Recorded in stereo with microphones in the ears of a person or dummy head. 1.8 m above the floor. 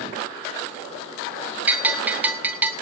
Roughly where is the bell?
Centre.